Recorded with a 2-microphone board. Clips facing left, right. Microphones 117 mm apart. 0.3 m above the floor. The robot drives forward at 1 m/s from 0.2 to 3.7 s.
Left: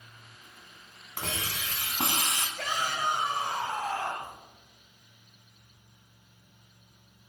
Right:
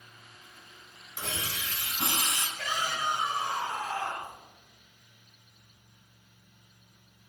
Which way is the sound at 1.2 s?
65° left (ahead or behind).